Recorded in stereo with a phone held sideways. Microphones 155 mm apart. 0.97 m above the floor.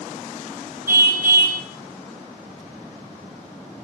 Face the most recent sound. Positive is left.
turn(degrees=-85)